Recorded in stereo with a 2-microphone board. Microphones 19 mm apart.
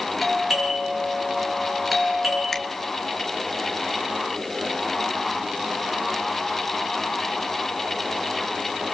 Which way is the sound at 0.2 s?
5° left (ahead or behind).